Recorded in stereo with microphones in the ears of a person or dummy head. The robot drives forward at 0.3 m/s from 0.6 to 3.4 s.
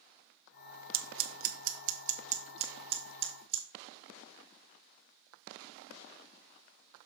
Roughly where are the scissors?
Right.